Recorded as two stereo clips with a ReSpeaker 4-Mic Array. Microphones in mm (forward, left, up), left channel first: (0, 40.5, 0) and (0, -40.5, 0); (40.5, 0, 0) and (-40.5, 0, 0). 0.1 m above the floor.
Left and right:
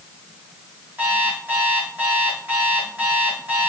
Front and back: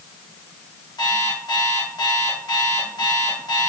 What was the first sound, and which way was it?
An alarm clock, 25° right.